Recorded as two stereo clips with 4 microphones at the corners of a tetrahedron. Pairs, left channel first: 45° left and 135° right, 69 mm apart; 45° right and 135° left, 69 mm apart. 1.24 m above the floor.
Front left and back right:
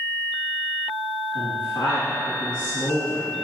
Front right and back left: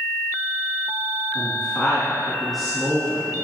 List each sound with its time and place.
1.4 s a woman speaking: 45° left, 2.5 m